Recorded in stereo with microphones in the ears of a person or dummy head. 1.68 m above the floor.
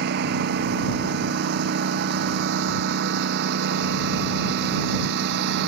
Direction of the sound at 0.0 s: 55° right (ahead or behind).